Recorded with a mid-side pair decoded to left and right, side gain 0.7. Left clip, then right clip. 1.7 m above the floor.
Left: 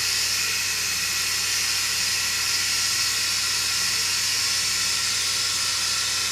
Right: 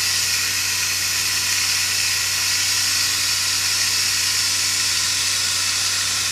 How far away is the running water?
About 0.7 m.